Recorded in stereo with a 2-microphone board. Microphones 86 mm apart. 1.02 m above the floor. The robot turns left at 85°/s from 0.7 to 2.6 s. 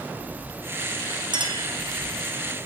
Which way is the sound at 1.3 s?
55° right.